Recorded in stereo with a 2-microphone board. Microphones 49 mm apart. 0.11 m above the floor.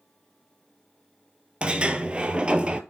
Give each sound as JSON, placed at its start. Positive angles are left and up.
{"t": 1.6, "sound": "a sliding door", "side_deg": -25, "distance_m": 0.5}